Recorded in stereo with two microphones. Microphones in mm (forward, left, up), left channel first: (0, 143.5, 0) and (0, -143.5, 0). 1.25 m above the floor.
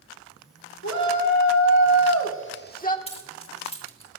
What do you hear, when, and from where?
0.8 s a shout: 70° left (ahead or behind), 1.7 m; by 3.0 s 25° left (ahead or behind), 1.5 m
3.1 s keys jangling: 20° left (ahead or behind), 1.9 m